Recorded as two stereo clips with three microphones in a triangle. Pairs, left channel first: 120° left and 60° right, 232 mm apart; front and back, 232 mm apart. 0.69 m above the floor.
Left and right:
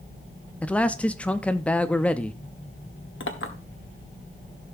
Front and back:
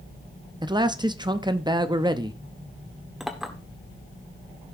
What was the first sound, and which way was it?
A man speaking, 165° right.